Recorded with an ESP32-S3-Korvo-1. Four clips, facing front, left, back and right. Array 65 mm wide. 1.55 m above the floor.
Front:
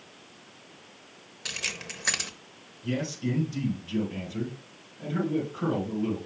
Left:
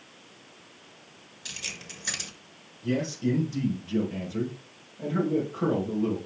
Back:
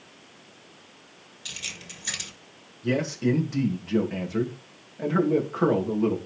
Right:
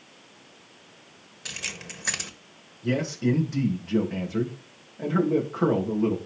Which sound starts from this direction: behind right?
A man speaking, at 2.8 s.